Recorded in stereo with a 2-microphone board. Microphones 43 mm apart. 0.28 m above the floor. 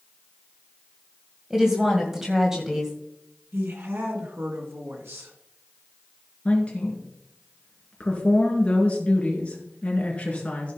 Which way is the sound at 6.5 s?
30° left (ahead or behind).